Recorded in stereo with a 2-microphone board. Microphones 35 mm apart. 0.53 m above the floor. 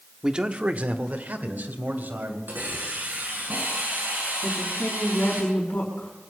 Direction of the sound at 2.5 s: 60° right (ahead or behind).